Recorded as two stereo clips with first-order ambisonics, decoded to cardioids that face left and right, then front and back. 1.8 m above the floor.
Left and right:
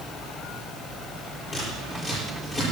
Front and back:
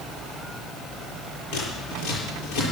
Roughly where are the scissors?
Ahead.